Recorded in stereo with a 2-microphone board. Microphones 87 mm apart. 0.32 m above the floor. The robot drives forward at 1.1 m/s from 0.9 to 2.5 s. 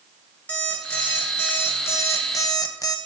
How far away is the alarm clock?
About 2.5 m.